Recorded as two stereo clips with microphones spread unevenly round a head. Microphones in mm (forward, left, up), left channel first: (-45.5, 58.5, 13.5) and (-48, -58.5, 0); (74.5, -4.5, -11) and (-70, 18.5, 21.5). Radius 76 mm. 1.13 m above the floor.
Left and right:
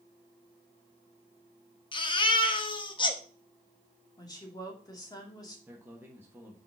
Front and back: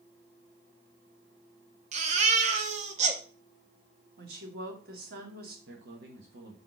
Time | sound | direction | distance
1.9 | a baby crying | 135° left | 1.1 m
4.2 | a woman speaking | 145° left | 2.5 m
5.7 | a man speaking | 165° right | 1.5 m